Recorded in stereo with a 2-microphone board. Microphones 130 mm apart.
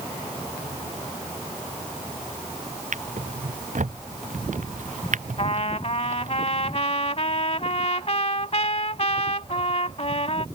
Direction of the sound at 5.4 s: 55° left (ahead or behind).